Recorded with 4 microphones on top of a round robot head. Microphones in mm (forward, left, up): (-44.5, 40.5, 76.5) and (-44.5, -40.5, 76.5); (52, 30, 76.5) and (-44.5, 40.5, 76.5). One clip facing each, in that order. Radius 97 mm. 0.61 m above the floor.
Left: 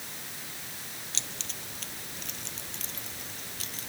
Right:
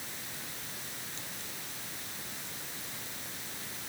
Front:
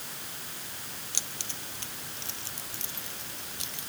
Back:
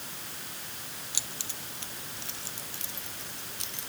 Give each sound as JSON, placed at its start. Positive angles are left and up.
{"t": 1.1, "sound": "keys jangling", "azimuth_deg": 90}